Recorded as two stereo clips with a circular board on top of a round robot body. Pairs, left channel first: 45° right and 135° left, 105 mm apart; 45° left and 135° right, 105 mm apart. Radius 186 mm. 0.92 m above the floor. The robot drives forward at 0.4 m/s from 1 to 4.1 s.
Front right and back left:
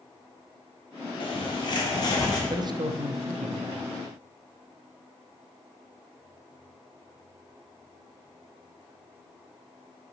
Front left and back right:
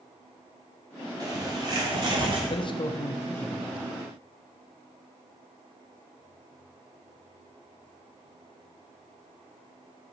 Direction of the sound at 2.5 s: 80° left.